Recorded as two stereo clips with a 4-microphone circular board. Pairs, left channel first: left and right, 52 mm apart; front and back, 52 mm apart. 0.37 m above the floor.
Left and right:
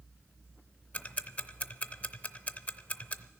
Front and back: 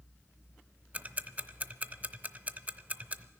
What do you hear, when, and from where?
0.9 s ticking: 140° left, 0.6 m